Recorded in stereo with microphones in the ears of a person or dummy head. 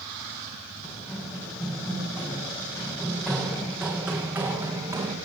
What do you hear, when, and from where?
0.8 s running footsteps: 20° left (ahead or behind), 7 m; by 5.2 s 15° right (ahead or behind), 4 m